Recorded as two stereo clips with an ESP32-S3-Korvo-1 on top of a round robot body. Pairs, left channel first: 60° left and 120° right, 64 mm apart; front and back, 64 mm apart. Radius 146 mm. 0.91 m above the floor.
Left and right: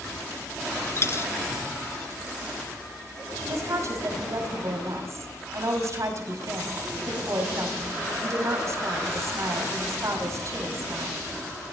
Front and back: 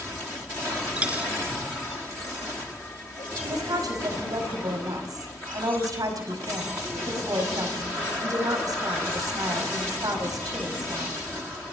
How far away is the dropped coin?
About 1.9 m.